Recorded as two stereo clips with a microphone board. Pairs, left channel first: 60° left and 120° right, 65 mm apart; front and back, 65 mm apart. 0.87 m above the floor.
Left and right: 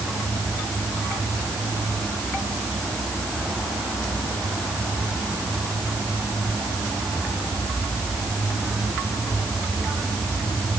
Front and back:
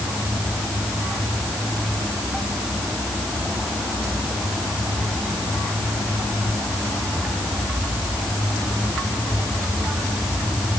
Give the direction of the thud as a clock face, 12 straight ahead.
No thud in this recording.